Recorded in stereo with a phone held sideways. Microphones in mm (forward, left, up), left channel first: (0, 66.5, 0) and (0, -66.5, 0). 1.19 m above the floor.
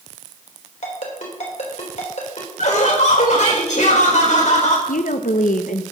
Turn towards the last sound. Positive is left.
turn(degrees=75)  # may be behind; listen again after turning